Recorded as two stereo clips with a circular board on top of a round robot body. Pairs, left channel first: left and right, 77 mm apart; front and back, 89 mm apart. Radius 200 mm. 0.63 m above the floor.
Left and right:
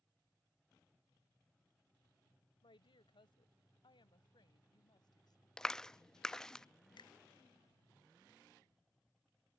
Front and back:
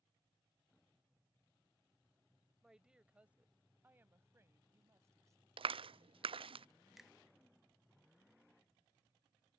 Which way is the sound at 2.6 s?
95° left.